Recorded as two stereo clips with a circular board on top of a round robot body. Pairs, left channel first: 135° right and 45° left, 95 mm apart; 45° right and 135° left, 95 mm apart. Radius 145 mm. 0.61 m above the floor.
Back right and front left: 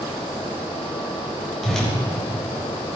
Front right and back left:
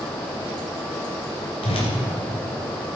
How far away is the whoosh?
About 3.5 m.